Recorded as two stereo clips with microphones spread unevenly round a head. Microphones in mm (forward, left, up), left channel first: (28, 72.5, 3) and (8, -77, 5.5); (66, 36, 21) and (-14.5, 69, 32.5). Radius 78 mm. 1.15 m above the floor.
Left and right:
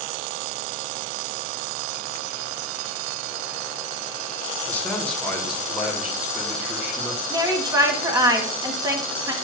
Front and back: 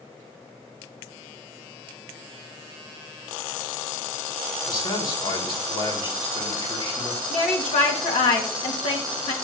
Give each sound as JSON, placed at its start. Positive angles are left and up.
{"t": 4.7, "sound": "a man speaking", "azimuth_deg": 5, "distance_m": 1.7}
{"t": 7.3, "sound": "a woman speaking", "azimuth_deg": -30, "distance_m": 1.4}